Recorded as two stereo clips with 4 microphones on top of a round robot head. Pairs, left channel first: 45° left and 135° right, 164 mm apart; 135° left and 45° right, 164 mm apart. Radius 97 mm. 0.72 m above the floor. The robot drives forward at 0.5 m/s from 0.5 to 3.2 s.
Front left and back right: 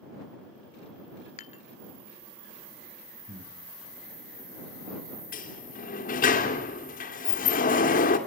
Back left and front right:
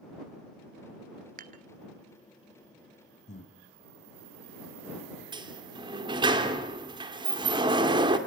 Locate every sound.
1.4 s dishes clattering: 5° right, 1.0 m
3.3 s breathing: straight behind, 3 m
5.3 s a sliding door: 15° left, 2.5 m